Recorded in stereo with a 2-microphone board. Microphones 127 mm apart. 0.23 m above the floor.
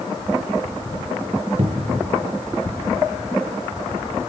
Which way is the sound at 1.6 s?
55° right (ahead or behind).